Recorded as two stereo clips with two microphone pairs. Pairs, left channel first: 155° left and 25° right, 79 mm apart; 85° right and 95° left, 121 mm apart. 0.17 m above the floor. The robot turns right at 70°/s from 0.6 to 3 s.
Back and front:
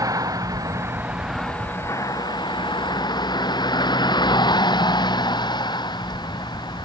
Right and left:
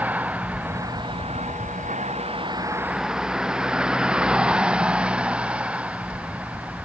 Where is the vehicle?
15° left; by 6.9 s 175° left.